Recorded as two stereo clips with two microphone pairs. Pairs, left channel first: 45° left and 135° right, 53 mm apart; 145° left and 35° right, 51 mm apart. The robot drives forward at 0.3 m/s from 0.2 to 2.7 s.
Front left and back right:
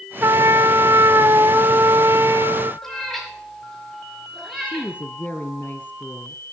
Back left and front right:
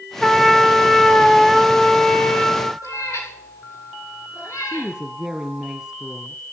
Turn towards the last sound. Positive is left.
turn(degrees=35)